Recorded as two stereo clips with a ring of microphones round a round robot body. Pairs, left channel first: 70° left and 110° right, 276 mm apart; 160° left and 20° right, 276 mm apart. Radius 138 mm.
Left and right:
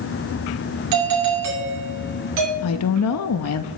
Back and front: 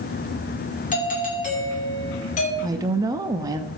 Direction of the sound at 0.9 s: 140° right.